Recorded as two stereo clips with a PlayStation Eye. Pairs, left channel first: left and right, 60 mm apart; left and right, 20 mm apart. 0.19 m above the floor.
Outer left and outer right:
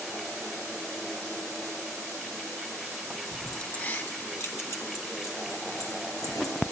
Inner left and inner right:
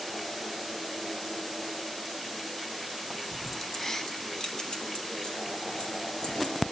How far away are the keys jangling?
About 0.8 m.